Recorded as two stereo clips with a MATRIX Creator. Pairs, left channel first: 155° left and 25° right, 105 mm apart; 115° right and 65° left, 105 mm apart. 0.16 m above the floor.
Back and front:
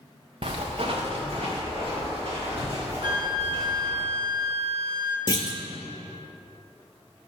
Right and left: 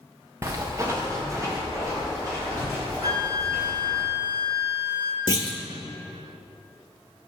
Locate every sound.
0.4 s footsteps: 5° left, 0.9 m; by 4.0 s 10° left, 6.5 m
3.0 s a flute: 10° left, 1.0 m
5.3 s a clunk: 155° right, 0.7 m